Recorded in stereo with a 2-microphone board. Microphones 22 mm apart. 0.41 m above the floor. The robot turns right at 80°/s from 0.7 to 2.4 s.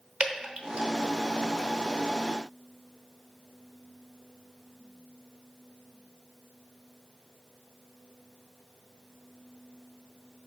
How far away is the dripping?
About 0.8 m.